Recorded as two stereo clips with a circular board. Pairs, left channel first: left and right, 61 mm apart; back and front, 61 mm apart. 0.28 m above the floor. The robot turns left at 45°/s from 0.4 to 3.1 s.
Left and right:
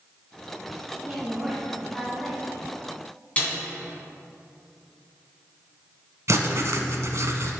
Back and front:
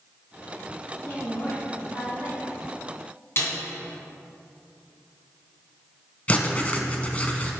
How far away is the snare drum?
About 3 m.